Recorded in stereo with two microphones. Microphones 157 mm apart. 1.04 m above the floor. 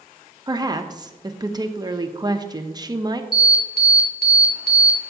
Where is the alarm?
70° left (ahead or behind), 1.9 m.